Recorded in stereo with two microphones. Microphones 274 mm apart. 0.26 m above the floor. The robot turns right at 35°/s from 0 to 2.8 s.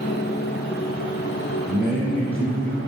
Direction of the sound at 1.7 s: 15° right.